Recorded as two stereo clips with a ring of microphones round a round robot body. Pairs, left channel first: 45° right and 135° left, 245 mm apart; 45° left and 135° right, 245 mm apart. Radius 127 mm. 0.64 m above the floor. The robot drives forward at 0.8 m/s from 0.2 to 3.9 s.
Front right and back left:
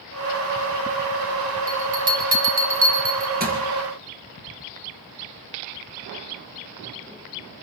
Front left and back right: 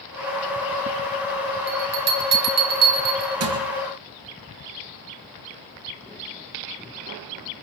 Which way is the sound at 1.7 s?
165° right.